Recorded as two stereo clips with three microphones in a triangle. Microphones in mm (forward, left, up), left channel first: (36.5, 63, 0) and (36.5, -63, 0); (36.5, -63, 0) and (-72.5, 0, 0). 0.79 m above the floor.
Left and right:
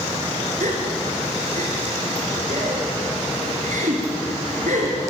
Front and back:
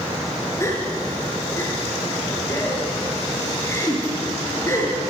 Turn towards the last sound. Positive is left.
turn(degrees=-100)